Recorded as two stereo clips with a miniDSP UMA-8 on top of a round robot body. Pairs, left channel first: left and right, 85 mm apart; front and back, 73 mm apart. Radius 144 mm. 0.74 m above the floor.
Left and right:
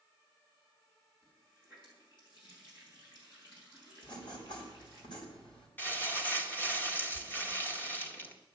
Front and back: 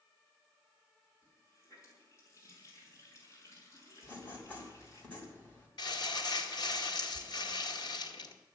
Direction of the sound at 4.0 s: 65° left.